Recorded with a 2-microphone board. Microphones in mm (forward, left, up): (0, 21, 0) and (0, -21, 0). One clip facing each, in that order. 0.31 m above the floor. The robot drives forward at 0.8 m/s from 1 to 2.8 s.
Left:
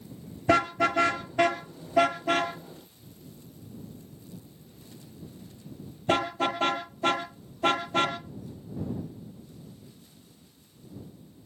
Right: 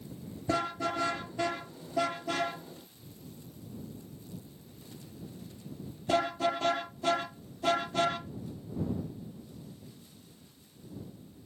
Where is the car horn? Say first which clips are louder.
Left 8 dB; 65° left (ahead or behind), 2.5 m; by 8.2 s 40° left (ahead or behind), 3.5 m.